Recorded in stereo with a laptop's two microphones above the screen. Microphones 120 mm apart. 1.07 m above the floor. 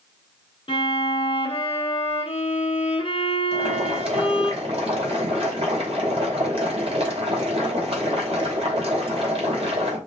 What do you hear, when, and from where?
0.7 s a violin: 45° left (ahead or behind), 1.4 m
3.5 s boiling: 55° right (ahead or behind), 2 m